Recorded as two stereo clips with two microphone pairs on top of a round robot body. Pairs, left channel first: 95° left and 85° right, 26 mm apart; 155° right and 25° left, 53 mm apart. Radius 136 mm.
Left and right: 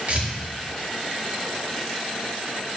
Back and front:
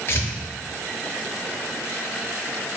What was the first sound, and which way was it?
Tearing paper, 120° right.